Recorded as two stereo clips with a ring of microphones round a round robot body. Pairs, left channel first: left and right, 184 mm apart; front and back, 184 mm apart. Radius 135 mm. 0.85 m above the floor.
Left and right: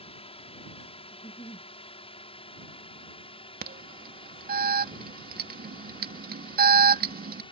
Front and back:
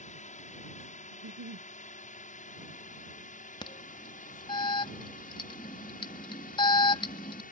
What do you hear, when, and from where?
0.0 s a drone: 40° left; by 7.5 s 35° left
1.1 s a giggle: 165° left
3.6 s an alarm: 65° right